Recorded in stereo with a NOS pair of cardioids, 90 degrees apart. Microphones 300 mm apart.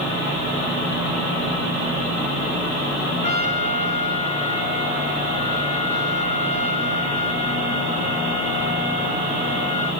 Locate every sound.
3.2 s a trumpet: 25° left, 1.8 m